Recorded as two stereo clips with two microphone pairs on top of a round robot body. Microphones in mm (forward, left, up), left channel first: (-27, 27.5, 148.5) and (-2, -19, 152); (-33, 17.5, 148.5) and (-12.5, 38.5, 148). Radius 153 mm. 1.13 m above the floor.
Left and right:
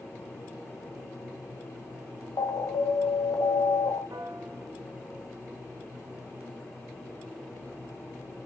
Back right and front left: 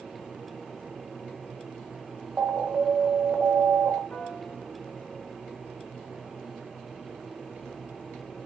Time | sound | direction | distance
2.4 | an alarm | 95° left | 1.2 m
4.1 | a piano | 85° right | 3.5 m